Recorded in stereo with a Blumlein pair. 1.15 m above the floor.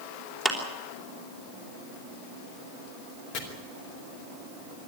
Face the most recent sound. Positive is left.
turn(degrees=40)